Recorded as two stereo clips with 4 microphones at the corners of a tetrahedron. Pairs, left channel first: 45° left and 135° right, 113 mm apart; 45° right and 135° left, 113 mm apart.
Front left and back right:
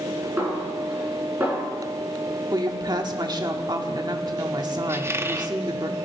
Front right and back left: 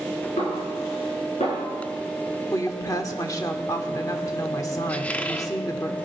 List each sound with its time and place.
0.4 s a snare drum: 55° right, 5 m
2.5 s a woman speaking: 95° right, 1.1 m
4.9 s a squeak: 100° right, 0.7 m